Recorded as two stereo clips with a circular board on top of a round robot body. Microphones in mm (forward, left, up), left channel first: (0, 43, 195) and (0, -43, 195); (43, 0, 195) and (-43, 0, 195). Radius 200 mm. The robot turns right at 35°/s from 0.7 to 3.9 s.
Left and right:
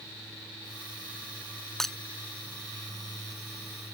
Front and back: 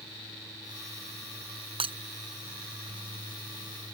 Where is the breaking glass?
175° left; by 1.9 s straight behind.